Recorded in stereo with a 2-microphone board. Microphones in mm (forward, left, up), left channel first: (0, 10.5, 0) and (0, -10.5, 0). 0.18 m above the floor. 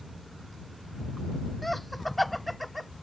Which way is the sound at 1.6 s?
5° left (ahead or behind).